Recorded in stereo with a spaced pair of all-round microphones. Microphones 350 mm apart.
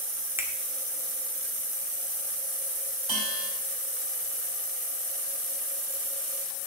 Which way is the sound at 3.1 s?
80° right.